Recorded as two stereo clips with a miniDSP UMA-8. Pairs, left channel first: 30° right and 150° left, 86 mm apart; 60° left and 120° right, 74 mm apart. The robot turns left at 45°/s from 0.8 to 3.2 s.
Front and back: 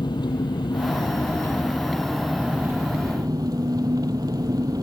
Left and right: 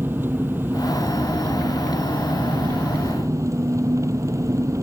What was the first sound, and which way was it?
An engine running, 60° right.